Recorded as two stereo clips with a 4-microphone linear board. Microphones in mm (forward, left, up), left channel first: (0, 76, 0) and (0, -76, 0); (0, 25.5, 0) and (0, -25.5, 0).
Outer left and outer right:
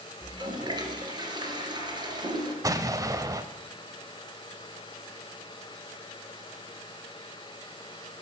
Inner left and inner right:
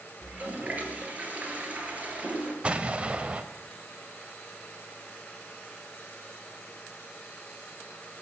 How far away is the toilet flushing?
About 1.9 m.